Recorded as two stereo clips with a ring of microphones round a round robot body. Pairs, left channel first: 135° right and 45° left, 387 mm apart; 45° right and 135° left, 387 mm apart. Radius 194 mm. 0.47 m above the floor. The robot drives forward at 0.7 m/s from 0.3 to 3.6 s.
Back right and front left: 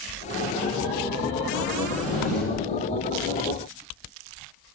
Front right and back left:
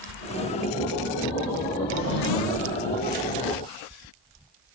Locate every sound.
1.9 s a drawer: 45° right, 6.5 m